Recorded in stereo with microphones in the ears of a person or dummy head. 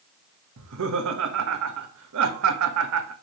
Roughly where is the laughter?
Right.